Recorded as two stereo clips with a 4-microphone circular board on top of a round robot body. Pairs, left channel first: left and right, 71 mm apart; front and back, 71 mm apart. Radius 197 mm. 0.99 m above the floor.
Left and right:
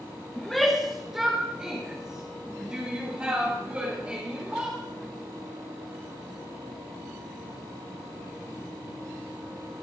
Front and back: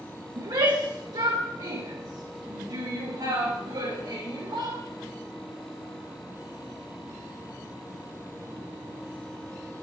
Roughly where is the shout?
Behind.